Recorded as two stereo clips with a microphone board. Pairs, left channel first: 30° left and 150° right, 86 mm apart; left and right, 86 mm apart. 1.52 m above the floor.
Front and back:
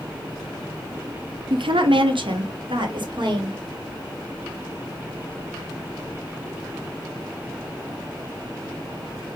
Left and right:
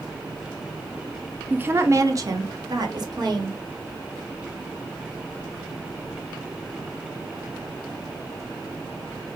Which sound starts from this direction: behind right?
A woman speaking, at 1.5 s.